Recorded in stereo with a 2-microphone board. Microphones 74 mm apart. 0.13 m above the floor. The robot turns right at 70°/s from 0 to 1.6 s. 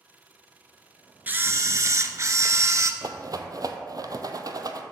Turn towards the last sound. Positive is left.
turn(degrees=-55)  # may be behind; listen again after turning